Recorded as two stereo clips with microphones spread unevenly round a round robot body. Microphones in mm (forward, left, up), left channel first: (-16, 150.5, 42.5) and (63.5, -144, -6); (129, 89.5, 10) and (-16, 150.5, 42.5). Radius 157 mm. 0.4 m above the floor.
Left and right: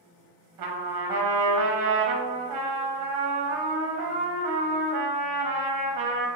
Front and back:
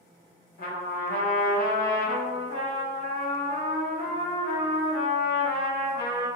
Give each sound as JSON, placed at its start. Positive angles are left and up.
{"t": 0.6, "sound": "a trumpet", "azimuth_deg": -65, "distance_m": 1.0}